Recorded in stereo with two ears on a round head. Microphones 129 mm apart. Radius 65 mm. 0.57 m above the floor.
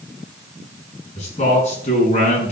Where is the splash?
I don't hear a splash.